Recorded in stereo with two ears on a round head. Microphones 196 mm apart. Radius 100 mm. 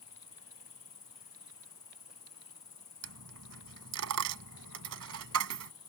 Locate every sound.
0.0 s an insect: 20° left (ahead or behind)
3.0 s a dropped coin: 75° right (ahead or behind)